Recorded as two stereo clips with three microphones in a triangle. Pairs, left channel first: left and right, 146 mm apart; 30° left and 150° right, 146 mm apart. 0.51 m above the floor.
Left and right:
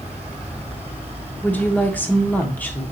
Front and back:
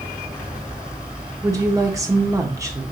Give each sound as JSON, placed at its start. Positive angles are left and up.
{"t": 1.4, "sound": "a woman speaking", "azimuth_deg": 160, "distance_m": 0.8}